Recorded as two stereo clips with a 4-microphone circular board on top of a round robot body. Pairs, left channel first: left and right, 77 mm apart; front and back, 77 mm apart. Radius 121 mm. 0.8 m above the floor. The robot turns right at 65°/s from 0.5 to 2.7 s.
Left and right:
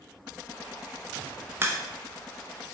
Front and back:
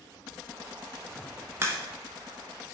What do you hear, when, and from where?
1.6 s a crack: 140° right, 0.9 m; by 1.8 s 125° right, 0.9 m